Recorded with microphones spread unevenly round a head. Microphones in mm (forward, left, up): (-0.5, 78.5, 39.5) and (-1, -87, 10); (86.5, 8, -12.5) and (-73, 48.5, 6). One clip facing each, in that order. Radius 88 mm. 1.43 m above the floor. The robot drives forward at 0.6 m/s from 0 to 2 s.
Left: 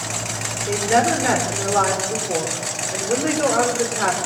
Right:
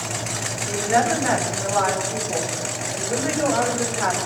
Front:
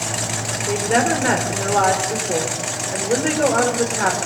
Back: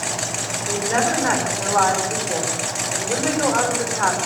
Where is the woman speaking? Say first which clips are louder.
Left 2 dB, front 3 dB; 45° left, 6 m; by 4.2 s 50° left, 5.5 m.